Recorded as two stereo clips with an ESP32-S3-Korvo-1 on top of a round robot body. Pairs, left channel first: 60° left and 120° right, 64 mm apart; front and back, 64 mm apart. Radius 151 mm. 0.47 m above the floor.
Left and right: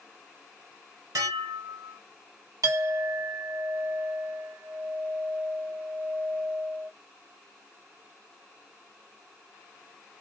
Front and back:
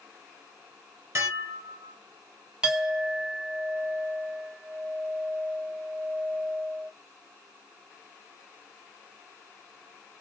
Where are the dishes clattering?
135° right, 2.5 m.